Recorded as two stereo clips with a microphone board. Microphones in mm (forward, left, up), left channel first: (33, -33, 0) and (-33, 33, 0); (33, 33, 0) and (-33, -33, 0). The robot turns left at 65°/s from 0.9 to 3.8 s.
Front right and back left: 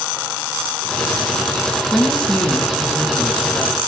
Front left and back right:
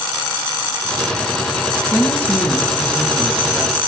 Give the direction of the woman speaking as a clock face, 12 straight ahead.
11 o'clock.